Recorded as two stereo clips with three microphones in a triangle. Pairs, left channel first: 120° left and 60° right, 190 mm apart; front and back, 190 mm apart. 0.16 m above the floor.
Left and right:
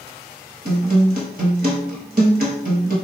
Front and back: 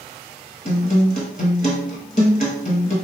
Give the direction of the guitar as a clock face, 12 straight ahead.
1 o'clock.